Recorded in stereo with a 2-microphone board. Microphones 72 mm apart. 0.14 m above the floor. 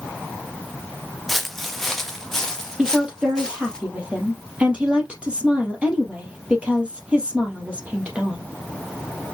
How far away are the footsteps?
About 1.2 m.